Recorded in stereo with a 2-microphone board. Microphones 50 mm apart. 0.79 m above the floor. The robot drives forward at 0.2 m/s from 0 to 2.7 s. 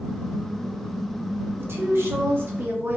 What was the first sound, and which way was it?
A woman speaking, 55° right (ahead or behind).